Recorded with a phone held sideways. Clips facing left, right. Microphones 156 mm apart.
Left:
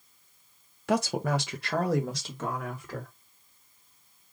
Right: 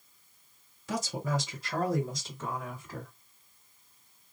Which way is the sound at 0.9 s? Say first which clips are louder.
Left 6 dB; 60° left (ahead or behind).